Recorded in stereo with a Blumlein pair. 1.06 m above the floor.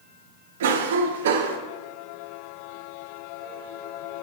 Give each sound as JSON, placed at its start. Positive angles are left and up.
{"t": 0.6, "sound": "a cough", "azimuth_deg": -60, "distance_m": 0.5}